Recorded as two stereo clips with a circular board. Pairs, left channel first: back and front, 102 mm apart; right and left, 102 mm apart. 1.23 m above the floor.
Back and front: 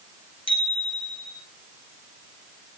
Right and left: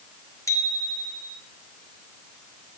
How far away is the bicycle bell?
About 4.5 m.